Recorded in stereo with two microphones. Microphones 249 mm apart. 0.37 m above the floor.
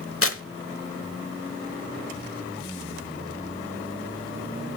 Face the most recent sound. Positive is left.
turn(degrees=60)  # may be behind; listen again after turning